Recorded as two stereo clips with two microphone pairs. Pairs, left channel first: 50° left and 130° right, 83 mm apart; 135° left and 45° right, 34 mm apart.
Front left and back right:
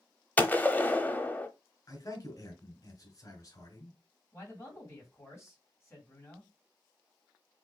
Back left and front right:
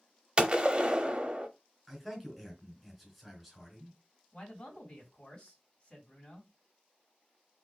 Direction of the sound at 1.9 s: 45° left.